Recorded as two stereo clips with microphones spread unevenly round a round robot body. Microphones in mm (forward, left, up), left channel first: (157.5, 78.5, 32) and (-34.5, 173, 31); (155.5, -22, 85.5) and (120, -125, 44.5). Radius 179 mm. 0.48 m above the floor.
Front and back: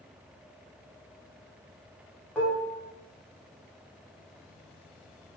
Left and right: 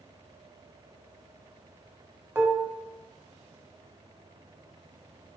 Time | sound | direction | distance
2.4 | dishes clattering | 110° right | 0.6 m